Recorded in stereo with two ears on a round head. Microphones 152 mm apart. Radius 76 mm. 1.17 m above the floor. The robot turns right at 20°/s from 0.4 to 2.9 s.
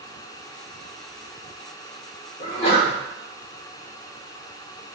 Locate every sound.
2.4 s a sneeze: 40° left (ahead or behind), 1.5 m; by 2.9 s 30° left (ahead or behind), 1.5 m